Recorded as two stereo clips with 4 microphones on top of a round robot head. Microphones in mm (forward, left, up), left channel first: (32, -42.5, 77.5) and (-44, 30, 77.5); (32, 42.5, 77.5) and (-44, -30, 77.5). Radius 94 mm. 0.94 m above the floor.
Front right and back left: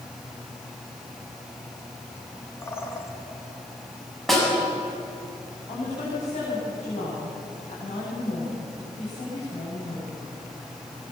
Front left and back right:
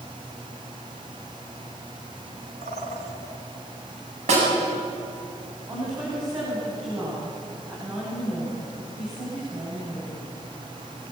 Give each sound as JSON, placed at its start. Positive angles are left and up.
{"t": 2.6, "sound": "a bird", "azimuth_deg": -110, "distance_m": 2.5}
{"t": 4.3, "sound": "a snare drum", "azimuth_deg": -135, "distance_m": 8.0}
{"t": 5.7, "sound": "a woman speaking", "azimuth_deg": -65, "distance_m": 8.5}